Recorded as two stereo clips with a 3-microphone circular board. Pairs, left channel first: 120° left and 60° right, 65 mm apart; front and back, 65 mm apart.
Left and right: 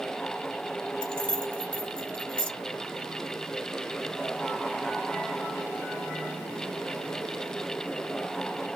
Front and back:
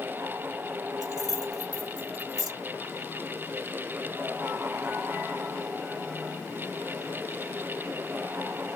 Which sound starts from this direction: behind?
Keys jangling, at 1.0 s.